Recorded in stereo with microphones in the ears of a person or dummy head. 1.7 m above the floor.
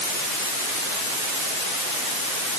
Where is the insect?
No insect in this recording.